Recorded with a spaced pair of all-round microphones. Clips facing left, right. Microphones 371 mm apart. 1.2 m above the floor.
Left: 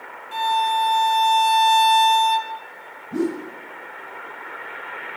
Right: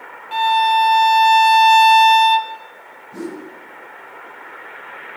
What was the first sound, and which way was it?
A violin, 70° right (ahead or behind).